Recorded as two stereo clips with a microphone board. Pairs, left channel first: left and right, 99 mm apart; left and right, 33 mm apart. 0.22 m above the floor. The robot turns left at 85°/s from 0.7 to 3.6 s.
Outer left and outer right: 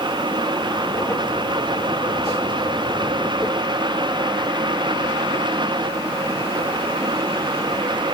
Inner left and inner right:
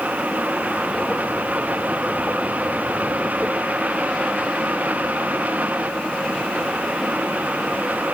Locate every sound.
Only background noise.